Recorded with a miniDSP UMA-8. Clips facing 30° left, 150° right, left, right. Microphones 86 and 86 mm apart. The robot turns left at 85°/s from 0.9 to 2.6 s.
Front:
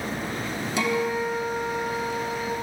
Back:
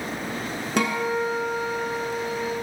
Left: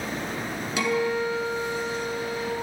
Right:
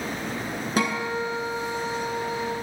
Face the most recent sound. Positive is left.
turn(degrees=85)